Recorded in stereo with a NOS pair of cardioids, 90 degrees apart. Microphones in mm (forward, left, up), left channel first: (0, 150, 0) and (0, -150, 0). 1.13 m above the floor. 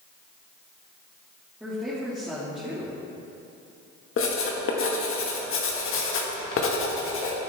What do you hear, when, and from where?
1.6 s a woman speaking: 5° right, 2 m
4.2 s writing: 50° left, 1.6 m